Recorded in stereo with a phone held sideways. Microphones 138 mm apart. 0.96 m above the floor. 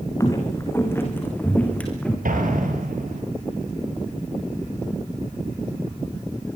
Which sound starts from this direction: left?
Footsteps, at 0.2 s.